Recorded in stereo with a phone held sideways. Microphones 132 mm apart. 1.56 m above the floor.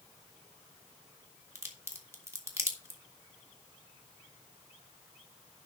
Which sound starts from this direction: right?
A crack, at 1.6 s.